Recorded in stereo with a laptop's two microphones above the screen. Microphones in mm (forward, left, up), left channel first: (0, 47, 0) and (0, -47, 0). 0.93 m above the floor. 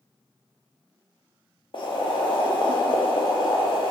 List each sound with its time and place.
1.7 s boiling: 55° left (ahead or behind), 0.6 m